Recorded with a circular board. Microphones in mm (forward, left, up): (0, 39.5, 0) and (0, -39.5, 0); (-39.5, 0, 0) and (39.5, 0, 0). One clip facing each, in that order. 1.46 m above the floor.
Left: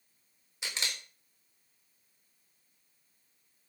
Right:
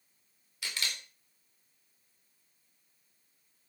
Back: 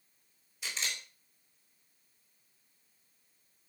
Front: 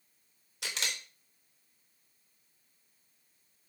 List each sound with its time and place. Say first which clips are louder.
0.6 s a camera shutter: even, front 1 dB; 20° left, 4 m